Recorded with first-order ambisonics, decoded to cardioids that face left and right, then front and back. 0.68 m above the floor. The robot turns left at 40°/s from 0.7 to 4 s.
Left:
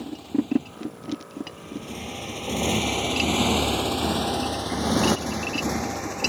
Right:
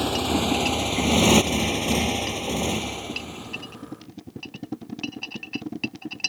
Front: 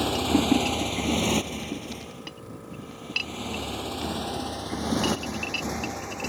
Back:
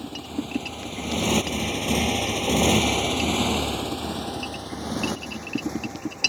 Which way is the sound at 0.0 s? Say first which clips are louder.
Right 6 dB, front 9 dB; 50° right.